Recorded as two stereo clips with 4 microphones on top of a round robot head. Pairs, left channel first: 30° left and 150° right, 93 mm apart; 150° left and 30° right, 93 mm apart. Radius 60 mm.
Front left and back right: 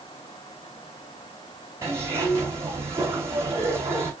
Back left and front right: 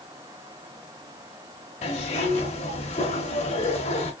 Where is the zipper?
150° left, 2.5 m.